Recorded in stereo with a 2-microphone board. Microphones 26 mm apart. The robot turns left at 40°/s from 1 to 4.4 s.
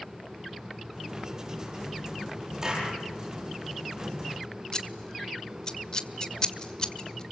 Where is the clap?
20° right (ahead or behind), 9.5 m; by 3.0 s 30° right (ahead or behind), 9.5 m.